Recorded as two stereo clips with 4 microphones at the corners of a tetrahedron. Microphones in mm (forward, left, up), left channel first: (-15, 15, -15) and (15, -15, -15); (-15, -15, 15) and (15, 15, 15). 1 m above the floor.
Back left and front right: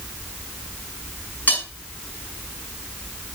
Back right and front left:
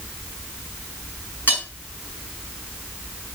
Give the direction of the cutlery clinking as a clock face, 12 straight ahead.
6 o'clock.